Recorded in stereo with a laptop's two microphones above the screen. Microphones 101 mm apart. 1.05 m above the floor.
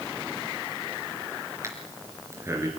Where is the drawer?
I don't hear a drawer.